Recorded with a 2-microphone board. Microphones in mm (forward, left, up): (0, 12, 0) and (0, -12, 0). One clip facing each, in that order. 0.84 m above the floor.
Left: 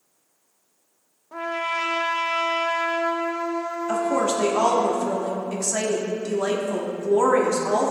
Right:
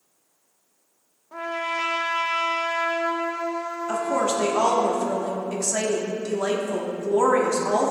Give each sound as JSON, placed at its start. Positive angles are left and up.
{"t": 1.3, "sound": "a trumpet", "side_deg": 5, "distance_m": 0.6}
{"t": 3.9, "sound": "a woman speaking", "side_deg": 10, "distance_m": 1.4}